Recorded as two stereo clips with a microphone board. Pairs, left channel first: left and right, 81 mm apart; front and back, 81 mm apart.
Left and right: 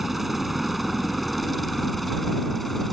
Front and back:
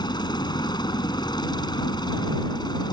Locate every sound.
0.0 s a helicopter: 5° right; by 2.9 s straight ahead